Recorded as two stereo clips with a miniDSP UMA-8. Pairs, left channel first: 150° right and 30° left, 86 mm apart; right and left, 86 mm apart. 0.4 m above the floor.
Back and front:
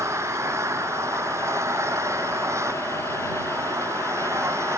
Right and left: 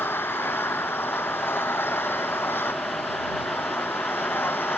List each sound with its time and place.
0.0 s an engine running: 25° right